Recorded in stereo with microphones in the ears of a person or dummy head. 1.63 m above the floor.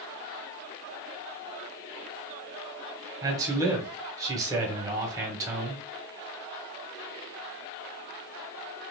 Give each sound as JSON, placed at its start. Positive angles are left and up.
{"t": 3.2, "sound": "a man speaking", "side_deg": -20, "distance_m": 1.5}